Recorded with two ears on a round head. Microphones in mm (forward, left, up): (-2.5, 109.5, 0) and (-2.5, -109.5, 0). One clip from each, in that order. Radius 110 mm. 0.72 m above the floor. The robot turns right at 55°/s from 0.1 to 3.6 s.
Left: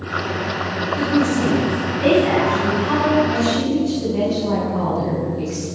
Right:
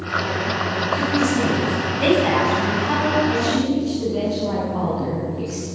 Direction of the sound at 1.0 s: 145° right.